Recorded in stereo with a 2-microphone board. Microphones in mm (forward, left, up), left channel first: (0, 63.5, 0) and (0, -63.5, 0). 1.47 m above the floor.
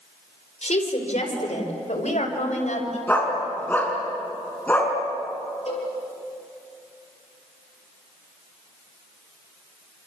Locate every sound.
0.6 s a woman speaking: 70° left (ahead or behind), 5 m; by 3.0 s 80° left, 6.5 m
3.1 s a dog barking: 15° left (ahead or behind), 5.5 m
5.7 s a cowbell: 60° left (ahead or behind), 7 m